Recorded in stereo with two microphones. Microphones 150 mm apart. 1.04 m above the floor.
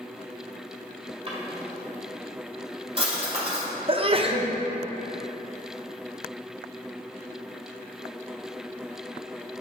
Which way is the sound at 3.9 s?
35° right (ahead or behind).